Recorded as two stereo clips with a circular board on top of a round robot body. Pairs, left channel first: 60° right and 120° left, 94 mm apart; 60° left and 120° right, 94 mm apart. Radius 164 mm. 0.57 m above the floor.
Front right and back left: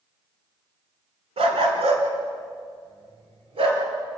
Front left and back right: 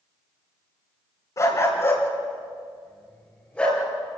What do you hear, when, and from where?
1.4 s a dog barking: 115° left, 2.5 m; by 3.8 s 140° left, 4 m